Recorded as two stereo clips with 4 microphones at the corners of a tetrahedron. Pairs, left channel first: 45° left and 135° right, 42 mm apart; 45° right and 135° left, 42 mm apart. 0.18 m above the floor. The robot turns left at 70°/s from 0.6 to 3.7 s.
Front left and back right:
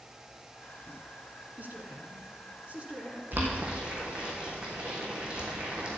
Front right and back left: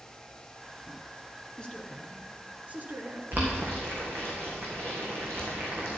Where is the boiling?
175° right, 3.5 m; by 6.0 s 160° left, 3.5 m.